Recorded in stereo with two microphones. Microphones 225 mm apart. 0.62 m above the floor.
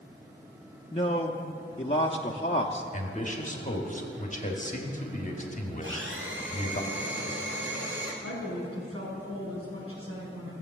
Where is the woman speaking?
85° right, 4.5 m.